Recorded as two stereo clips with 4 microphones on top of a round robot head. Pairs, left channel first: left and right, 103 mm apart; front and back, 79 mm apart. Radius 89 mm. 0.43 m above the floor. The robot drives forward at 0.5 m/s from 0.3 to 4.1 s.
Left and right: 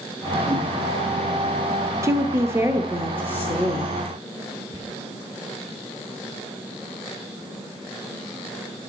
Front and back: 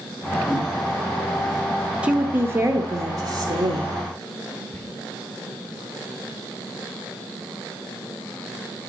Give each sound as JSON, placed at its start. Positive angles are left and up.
{"t": 0.5, "sound": "a whoosh", "azimuth_deg": -85, "distance_m": 4.0}
{"t": 2.0, "sound": "a woman speaking", "azimuth_deg": -115, "distance_m": 0.8}
{"t": 4.7, "sound": "whispering", "azimuth_deg": -135, "distance_m": 4.0}